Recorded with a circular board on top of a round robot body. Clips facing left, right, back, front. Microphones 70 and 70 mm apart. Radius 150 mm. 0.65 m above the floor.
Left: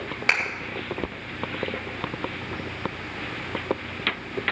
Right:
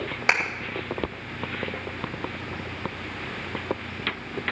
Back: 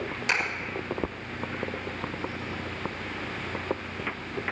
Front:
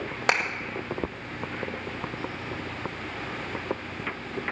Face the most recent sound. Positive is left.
turn(degrees=-20)